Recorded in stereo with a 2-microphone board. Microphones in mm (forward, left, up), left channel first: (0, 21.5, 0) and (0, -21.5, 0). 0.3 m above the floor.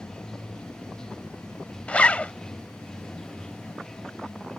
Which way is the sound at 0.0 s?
15° left (ahead or behind).